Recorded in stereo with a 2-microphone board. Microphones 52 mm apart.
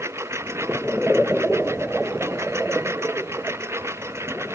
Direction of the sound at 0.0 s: 60° right (ahead or behind).